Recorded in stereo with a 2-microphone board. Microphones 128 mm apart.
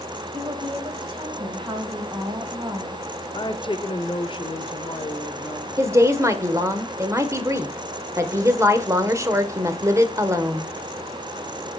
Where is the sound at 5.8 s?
25° right (ahead or behind), 1.0 m.